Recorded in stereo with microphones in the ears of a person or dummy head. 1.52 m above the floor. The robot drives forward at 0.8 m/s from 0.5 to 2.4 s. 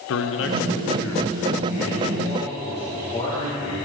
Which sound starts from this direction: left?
A man speaking, at 0.1 s.